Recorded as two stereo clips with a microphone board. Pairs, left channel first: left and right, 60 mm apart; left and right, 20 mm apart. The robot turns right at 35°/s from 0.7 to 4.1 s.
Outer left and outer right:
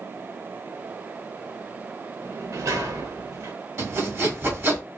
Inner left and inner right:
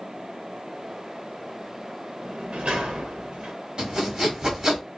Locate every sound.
2.2 s a sliding door: 120° right, 1.0 m; by 3.5 s 75° right, 1.0 m
3.8 s sawing: 55° right (ahead or behind), 1.5 m; by 4.8 s 45° right (ahead or behind), 1.5 m